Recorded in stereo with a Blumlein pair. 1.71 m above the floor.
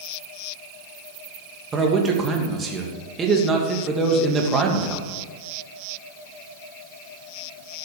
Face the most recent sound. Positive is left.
turn(degrees=-20)